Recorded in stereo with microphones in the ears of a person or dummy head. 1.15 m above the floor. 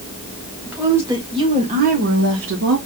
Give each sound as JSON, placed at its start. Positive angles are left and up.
{"t": 0.7, "sound": "a woman speaking", "side_deg": -10, "distance_m": 2.0}